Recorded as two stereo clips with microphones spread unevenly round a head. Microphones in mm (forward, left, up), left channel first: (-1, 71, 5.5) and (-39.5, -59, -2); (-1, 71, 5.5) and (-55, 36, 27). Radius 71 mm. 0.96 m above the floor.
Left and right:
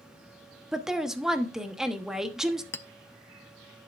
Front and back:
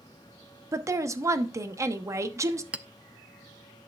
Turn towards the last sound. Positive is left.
turn(degrees=145)